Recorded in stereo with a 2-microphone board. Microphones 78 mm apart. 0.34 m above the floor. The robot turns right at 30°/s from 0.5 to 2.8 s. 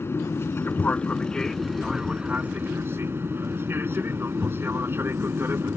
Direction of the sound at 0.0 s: 145° left.